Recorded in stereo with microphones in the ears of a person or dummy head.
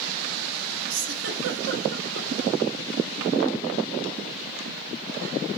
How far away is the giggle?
About 0.9 m.